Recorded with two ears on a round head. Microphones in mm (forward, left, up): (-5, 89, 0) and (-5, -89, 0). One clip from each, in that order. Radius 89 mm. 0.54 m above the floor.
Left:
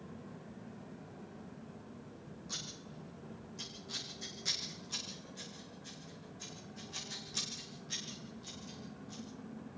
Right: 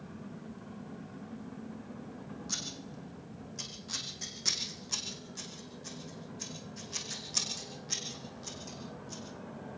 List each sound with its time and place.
2.5 s scissors: 25° right (ahead or behind), 6 m